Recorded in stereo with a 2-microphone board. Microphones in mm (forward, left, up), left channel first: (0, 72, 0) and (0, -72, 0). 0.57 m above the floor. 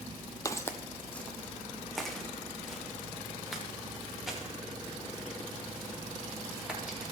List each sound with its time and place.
0.5 s footsteps: 25° left (ahead or behind), 0.9 m; by 7.0 s 5° right (ahead or behind), 8 m